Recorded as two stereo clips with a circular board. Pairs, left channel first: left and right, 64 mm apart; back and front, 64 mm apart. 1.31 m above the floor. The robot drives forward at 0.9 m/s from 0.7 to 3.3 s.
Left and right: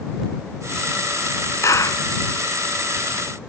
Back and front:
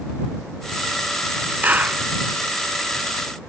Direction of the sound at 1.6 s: 60° left.